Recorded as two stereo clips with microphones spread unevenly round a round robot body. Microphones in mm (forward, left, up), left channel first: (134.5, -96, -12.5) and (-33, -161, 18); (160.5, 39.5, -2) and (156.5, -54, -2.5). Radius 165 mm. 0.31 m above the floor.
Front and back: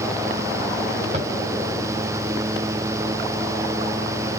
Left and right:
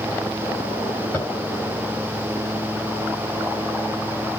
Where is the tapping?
145° left, 2.0 m.